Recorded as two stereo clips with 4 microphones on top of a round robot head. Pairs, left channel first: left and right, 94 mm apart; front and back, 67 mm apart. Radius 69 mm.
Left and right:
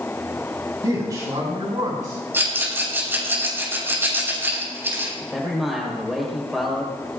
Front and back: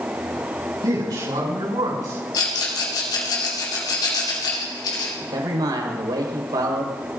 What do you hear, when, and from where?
0.8 s a man speaking: 150° right, 6.5 m; by 2.2 s 145° right, 7 m
2.3 s a rattle: 25° right, 9.5 m
5.2 s a man speaking: straight behind, 5 m